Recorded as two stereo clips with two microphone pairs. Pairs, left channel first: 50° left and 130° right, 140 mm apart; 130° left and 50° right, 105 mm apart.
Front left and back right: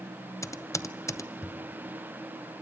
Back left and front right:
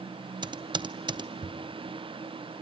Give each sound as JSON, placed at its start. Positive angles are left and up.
{"t": 0.4, "sound": "typing on a keyboard", "azimuth_deg": -20, "distance_m": 0.6}